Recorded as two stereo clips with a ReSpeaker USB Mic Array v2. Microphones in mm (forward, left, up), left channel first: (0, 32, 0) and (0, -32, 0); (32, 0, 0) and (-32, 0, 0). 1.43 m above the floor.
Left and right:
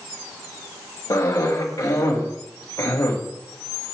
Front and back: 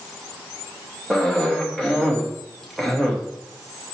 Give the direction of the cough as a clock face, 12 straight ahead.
9 o'clock.